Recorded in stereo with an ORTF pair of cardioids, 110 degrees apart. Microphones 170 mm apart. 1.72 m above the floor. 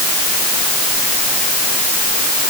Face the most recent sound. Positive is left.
No sound to turn to.